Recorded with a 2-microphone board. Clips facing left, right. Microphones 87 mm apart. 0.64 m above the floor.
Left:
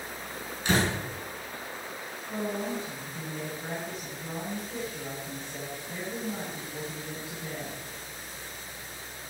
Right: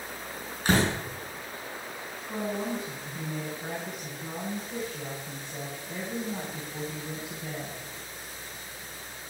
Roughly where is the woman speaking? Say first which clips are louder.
Right 1 dB; centre.